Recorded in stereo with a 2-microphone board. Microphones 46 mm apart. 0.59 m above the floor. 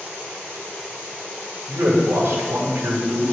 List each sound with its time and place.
1.7 s a man speaking: 60° right (ahead or behind), 3 m